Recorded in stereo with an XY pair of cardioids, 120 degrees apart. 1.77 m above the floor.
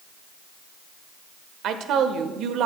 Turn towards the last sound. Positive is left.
turn(degrees=-65)